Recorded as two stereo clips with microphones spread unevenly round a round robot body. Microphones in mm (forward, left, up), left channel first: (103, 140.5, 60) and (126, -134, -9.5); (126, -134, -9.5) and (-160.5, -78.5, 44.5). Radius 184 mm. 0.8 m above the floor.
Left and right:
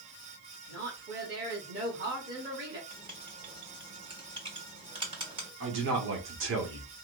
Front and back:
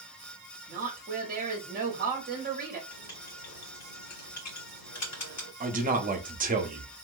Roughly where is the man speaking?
Behind right.